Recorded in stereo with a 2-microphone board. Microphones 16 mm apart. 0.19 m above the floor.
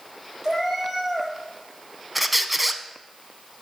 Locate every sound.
0.4 s a cat meowing: 35° right (ahead or behind), 2.5 m
2.1 s a squeak: 5° right (ahead or behind), 0.6 m